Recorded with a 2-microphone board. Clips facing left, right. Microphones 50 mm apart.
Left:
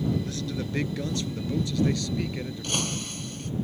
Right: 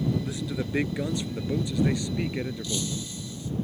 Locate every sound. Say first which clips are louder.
0.2 s a man speaking: right 1 dB; 15° right (ahead or behind); by 2.9 s 20° right (ahead or behind)
2.6 s breaking glass: left 1 dB; 60° left (ahead or behind)